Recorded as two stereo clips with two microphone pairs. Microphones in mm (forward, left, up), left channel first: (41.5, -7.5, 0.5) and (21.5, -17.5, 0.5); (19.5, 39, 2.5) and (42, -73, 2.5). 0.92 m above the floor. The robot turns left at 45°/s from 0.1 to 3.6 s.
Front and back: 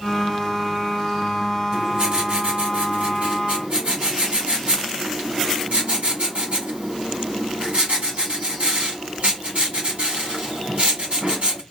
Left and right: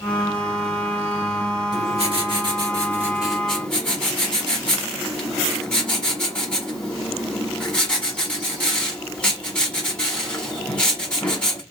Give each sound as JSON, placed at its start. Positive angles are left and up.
{"t": 1.7, "sound": "writing", "azimuth_deg": -95, "distance_m": 1.4}